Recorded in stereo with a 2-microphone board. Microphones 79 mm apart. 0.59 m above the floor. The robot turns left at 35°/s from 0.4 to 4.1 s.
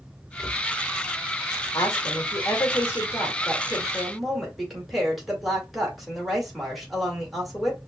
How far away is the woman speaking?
About 2 m.